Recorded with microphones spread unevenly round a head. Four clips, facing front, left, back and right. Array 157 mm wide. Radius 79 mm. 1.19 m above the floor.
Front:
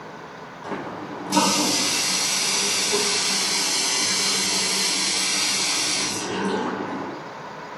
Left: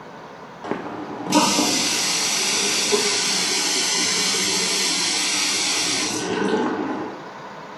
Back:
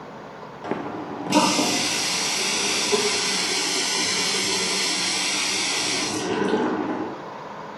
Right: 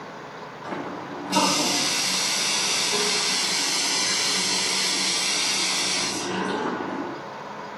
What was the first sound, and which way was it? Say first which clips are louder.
A running tap: left 4 dB, back 2 dB; 120° left.